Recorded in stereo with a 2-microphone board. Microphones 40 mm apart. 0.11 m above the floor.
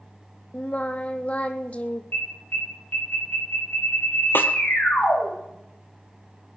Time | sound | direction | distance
0.5 | singing | 35° left (ahead or behind) | 1.2 m
2.1 | an alarm | 55° left (ahead or behind) | 7.5 m
4.3 | a snare drum | 60° left (ahead or behind) | 1.4 m